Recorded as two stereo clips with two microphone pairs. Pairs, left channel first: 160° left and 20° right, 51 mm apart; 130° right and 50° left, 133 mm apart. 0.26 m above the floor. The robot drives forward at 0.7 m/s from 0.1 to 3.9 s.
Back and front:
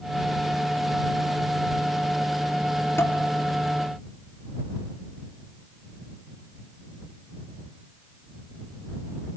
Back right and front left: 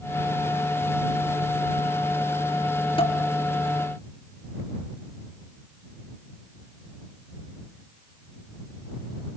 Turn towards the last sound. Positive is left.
turn(degrees=-175)